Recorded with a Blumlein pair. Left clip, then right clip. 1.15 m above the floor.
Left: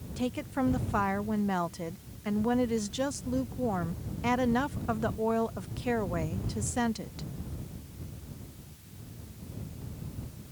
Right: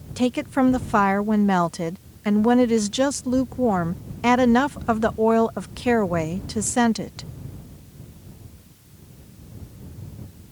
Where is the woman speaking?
25° right.